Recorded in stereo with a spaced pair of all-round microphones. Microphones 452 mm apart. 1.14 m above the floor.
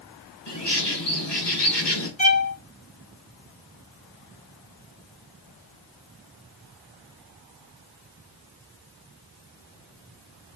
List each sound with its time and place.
0.5 s a bird: 65° left (ahead or behind), 1.4 m
2.2 s a violin: 15° left (ahead or behind), 0.7 m